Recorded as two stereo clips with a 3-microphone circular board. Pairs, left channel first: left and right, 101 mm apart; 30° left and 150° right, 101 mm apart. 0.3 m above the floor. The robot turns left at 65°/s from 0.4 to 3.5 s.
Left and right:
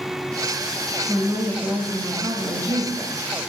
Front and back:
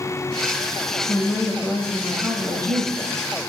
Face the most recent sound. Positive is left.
turn(degrees=-175)